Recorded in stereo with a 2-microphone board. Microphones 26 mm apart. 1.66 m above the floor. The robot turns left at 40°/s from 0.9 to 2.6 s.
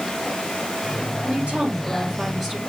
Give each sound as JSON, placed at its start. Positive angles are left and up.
{"t": 1.2, "sound": "a woman speaking", "azimuth_deg": -125, "distance_m": 3.5}